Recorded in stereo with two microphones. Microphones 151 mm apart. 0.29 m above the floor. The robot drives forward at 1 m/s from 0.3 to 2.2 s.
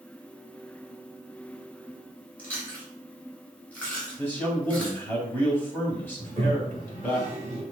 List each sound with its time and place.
2.4 s chewing: 15° left (ahead or behind), 2.5 m
4.2 s a man speaking: 15° left (ahead or behind), 1.5 m
6.2 s a toilet flushing: 25° right (ahead or behind), 1.7 m